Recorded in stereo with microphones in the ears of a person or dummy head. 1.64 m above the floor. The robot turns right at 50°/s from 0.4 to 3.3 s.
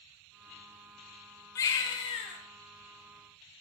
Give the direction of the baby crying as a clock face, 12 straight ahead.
11 o'clock.